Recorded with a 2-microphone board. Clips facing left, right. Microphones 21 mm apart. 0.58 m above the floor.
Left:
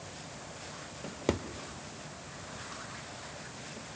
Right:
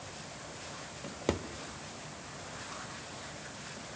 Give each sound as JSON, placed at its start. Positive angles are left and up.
{"t": 1.0, "sound": "a drawer", "side_deg": 0, "distance_m": 0.6}